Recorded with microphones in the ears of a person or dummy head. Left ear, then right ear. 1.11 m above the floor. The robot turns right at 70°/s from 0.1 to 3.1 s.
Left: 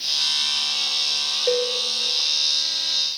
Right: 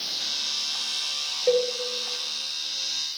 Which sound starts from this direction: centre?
A cowbell, at 1.5 s.